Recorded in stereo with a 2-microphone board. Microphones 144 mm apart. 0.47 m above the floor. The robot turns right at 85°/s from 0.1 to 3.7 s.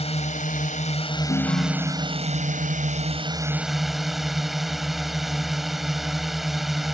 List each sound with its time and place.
0.0 s a drone: 55° left; by 7.0 s straight ahead
1.3 s a ringtone: 105° left; by 2.8 s 130° right